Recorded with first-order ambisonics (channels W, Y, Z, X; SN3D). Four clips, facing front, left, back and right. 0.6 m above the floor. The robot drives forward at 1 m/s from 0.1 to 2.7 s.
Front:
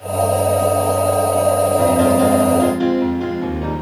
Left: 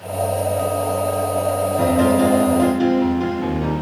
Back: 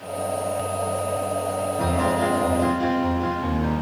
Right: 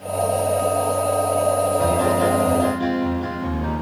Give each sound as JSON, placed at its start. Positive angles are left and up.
{"t": 1.8, "sound": "a piano", "azimuth_deg": 75, "distance_m": 6.0}